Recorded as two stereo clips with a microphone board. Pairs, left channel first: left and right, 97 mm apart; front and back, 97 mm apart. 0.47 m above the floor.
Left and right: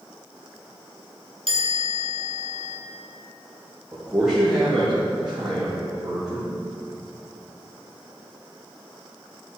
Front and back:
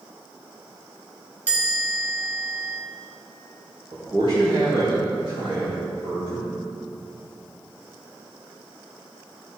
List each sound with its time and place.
1.5 s a chime: 110° right, 2.5 m
3.9 s a man speaking: 175° right, 4 m